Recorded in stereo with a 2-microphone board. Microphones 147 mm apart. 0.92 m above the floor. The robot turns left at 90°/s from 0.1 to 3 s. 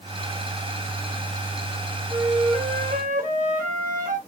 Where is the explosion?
No explosion in this recording.